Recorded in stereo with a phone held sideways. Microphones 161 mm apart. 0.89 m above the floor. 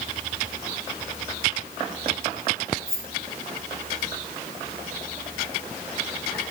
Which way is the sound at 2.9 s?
65° right (ahead or behind).